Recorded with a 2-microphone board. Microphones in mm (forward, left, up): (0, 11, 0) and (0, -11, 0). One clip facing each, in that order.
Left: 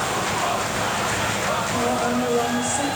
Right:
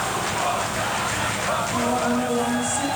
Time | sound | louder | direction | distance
1.7 | a woman speaking | even | 25° left (ahead or behind) | 3 m